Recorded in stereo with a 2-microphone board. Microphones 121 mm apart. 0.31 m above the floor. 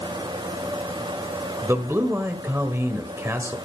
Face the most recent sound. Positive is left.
turn(degrees=-20)  # may be behind; listen again after turning